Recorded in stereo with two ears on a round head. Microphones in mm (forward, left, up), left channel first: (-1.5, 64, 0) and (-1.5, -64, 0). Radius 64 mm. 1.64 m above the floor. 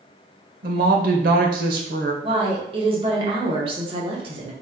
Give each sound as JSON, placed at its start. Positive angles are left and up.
{"t": 0.6, "sound": "a woman speaking", "side_deg": -70, "distance_m": 0.8}
{"t": 2.2, "sound": "a woman speaking", "side_deg": -40, "distance_m": 0.9}